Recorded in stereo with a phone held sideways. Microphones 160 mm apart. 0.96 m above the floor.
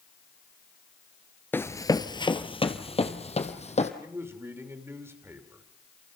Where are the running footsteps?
15° left (ahead or behind), 1.0 m; by 3.9 s 45° left (ahead or behind), 2.5 m.